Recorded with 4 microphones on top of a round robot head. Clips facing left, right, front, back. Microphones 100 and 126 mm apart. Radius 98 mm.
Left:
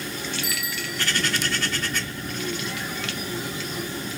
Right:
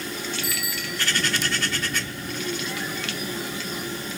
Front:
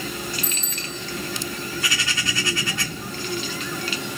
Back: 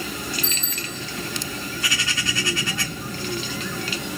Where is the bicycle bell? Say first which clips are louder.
Even, back 1 dB; 70° left, 4.5 m.